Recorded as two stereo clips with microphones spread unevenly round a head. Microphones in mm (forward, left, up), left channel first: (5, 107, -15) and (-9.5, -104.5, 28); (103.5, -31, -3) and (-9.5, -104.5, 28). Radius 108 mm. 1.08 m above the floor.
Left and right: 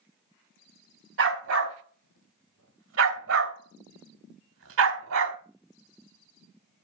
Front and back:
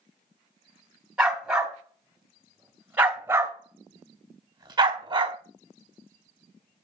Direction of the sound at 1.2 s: 65° right.